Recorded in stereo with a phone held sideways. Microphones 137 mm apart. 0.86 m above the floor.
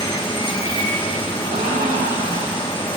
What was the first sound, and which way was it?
Running water, 40° left (ahead or behind).